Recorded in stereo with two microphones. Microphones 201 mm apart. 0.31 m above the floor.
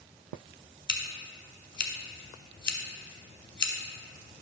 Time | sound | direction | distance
0.9 | scissors | 60° left (ahead or behind) | 0.9 m